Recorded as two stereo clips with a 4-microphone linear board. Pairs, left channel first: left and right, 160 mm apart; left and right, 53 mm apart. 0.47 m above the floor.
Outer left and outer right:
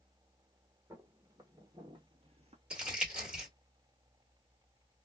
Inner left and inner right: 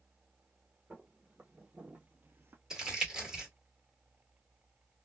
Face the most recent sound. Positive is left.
turn(degrees=-10)  # may be behind; listen again after turning